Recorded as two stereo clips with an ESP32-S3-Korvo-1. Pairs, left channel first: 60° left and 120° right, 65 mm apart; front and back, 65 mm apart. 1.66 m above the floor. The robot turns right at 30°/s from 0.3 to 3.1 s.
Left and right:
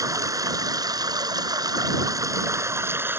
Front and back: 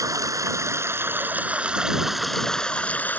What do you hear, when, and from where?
0.0 s running water: 150° right; by 3.2 s 65° right